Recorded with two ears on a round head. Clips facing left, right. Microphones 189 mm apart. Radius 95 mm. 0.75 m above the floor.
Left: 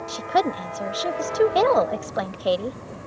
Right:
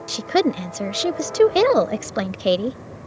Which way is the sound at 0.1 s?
30° right (ahead or behind).